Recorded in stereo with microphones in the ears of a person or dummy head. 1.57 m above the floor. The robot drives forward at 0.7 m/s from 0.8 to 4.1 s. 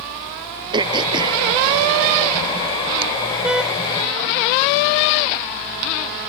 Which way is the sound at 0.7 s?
25° right (ahead or behind).